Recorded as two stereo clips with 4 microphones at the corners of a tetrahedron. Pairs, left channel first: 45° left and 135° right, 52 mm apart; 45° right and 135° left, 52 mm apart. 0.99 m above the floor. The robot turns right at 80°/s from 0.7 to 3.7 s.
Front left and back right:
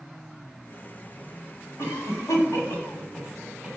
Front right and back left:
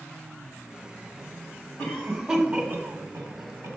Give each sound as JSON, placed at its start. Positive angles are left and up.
{"t": 1.8, "sound": "a cough", "azimuth_deg": 10, "distance_m": 2.5}